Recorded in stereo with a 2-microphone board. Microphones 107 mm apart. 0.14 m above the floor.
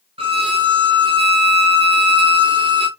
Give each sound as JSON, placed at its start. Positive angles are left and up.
{"t": 0.2, "sound": "a violin", "side_deg": -55, "distance_m": 1.4}